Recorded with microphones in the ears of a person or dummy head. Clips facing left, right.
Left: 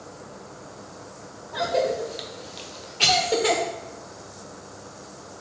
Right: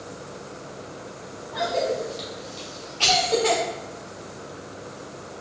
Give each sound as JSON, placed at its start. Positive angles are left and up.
{"t": 1.5, "sound": "a cough", "side_deg": 20, "distance_m": 0.6}